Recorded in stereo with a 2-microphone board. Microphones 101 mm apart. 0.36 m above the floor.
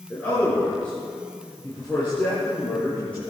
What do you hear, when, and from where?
0.1 s a man speaking: 15° left (ahead or behind), 6 m; by 3.3 s 10° left (ahead or behind), 10.5 m